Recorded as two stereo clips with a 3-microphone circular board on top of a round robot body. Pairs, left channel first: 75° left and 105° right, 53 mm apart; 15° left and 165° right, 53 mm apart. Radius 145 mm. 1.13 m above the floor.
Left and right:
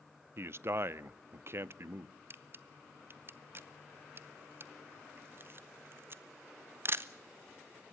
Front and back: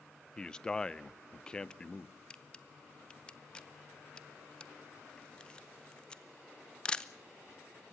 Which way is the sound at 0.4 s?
60° right.